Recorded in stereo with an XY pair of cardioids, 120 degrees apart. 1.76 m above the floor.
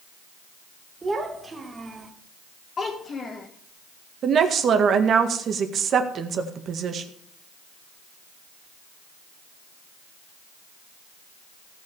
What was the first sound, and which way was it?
A child speaking, 20° right.